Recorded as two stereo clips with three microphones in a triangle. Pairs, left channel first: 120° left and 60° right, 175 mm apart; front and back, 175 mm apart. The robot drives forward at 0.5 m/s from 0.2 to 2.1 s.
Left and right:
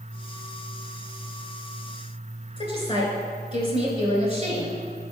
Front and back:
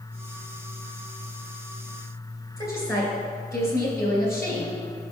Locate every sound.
2.6 s a woman speaking: 70° left, 2.5 m